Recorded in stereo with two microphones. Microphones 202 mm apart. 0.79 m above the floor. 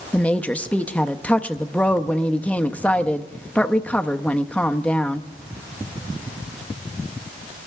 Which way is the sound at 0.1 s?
5° left (ahead or behind).